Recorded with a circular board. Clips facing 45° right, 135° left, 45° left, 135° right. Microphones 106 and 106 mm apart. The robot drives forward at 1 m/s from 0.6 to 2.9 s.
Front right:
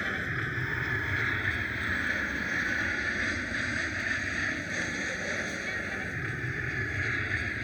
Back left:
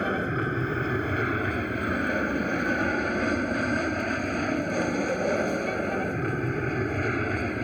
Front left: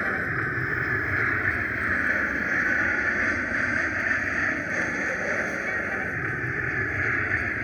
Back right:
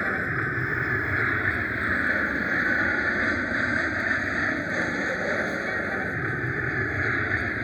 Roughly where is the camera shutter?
I don't hear a camera shutter.